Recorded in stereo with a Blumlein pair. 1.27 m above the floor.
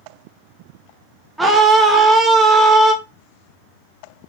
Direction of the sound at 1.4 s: 5° right.